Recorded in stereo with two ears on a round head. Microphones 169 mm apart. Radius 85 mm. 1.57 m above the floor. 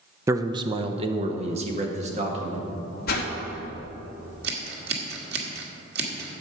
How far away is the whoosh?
About 2.5 m.